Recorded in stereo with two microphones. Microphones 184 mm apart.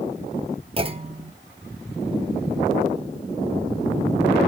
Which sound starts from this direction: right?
A clunk, at 0.8 s.